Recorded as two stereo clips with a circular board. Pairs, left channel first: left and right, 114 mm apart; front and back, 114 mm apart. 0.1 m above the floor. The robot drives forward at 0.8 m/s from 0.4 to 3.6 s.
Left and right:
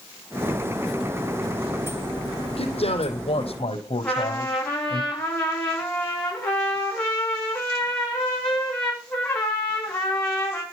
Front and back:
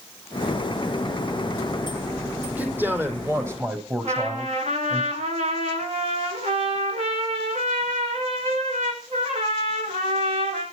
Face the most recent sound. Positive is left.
turn(degrees=170)